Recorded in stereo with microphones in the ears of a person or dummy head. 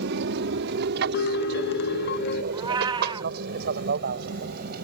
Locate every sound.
0.0 s an aircraft: 60° right (ahead or behind); by 4.8 s 55° right (ahead or behind)
1.1 s a piano: 55° left (ahead or behind)
2.5 s a cat meowing: 20° right (ahead or behind)